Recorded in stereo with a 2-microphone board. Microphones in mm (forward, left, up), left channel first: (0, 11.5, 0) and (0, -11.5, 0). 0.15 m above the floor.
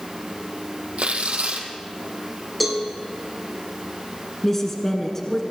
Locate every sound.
1.0 s tearing paper: 75° right (ahead or behind), 3 m
2.6 s a cowbell: 5° left (ahead or behind), 4.5 m
4.4 s a woman speaking: 20° left (ahead or behind), 1.9 m